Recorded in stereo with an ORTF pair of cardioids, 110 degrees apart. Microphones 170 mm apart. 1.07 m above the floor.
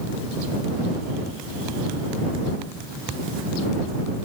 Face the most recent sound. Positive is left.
No sound to turn to.